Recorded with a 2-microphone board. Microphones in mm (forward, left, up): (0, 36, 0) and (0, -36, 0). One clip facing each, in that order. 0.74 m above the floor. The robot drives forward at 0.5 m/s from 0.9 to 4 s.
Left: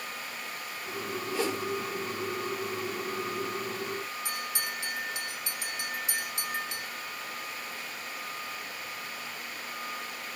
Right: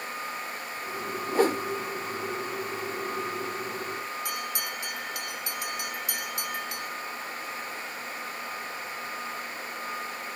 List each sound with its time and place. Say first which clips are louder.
1.3 s a whoosh: right 8 dB; 40° right (ahead or behind), 0.8 m; by 1.6 s 50° right (ahead or behind), 0.7 m
4.2 s a bell: right 2 dB; 30° left (ahead or behind), 1.1 m